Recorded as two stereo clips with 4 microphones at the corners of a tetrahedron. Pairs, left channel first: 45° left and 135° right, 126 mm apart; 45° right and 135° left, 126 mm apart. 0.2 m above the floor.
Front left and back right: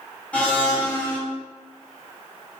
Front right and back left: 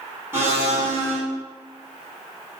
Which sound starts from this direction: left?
A blender, at 0.3 s.